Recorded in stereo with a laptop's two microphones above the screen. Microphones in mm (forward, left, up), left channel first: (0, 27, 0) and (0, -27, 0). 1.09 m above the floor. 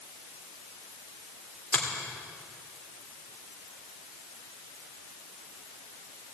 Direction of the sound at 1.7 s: 25° left (ahead or behind).